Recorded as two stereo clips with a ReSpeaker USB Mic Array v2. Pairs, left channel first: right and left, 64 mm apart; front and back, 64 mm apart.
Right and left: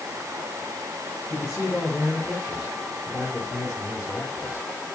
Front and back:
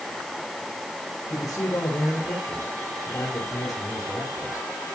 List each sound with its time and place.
1.3 s a man speaking: 5° left, 9.5 m; by 4.8 s 20° left, 8.5 m